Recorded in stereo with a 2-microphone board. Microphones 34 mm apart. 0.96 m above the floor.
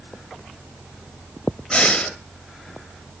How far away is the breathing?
About 1.0 m.